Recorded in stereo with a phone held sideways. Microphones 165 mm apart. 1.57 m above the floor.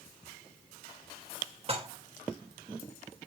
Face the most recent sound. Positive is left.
turn(degrees=-40)  # may be behind; listen again after turning